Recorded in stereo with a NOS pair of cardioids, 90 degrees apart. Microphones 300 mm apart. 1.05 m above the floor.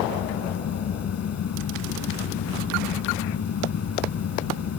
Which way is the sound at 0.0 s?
60° left.